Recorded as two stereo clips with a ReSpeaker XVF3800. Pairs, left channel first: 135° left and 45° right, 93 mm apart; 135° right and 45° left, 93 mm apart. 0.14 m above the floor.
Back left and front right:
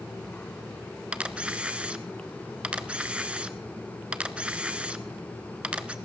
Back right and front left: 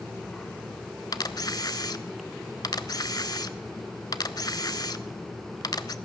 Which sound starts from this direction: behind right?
A camera shutter, at 1.1 s.